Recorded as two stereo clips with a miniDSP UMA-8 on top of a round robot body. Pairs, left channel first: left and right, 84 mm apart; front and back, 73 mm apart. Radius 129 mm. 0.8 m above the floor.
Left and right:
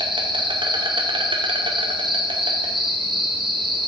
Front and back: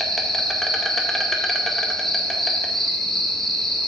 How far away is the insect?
About 1.0 m.